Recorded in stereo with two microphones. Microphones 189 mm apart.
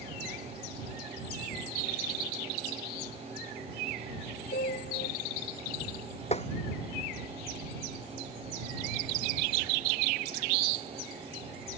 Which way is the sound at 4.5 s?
60° left (ahead or behind).